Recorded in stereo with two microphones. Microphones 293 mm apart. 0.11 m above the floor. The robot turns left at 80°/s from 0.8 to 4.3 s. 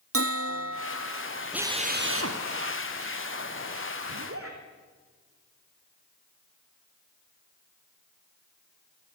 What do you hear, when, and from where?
0.1 s a bell: 50° right, 0.7 m; by 1.2 s 85° right, 0.7 m
1.5 s a drill: 5° right, 2.5 m; by 2.4 s 75° right, 2.5 m
4.1 s a zipper: 65° right (ahead or behind), 4 m; by 4.6 s 50° right (ahead or behind), 4 m